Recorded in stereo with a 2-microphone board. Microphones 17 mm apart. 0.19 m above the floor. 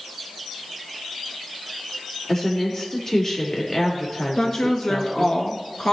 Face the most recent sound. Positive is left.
turn(degrees=50)  # may be behind; listen again after turning